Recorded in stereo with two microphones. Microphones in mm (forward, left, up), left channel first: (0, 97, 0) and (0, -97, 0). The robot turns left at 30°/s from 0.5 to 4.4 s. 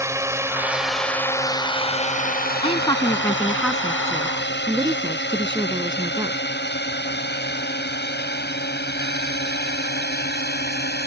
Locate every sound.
0.0 s a drone: 15° right (ahead or behind); by 11.1 s 55° left (ahead or behind)
2.6 s a woman speaking: 30° left; by 6.4 s 25° right